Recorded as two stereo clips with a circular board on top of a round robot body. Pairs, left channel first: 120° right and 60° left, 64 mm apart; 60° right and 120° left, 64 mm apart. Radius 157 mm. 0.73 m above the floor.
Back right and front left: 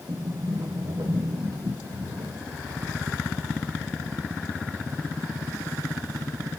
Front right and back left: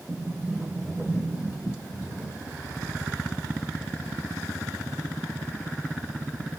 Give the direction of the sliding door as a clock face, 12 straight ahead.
11 o'clock.